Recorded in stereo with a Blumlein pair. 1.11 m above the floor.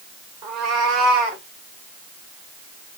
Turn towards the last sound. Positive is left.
turn(degrees=-10)